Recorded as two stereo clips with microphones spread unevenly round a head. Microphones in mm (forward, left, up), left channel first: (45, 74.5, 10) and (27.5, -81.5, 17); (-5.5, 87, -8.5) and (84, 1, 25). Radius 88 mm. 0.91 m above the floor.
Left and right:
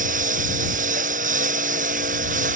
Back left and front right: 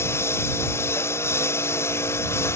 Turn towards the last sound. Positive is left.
turn(degrees=-145)